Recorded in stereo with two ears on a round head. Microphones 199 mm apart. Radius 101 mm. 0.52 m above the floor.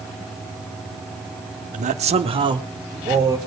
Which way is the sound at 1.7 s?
35° right (ahead or behind).